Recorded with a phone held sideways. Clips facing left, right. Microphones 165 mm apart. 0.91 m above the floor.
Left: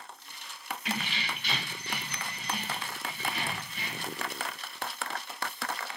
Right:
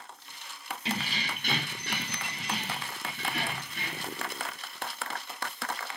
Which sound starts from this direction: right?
Keys jangling, at 0.8 s.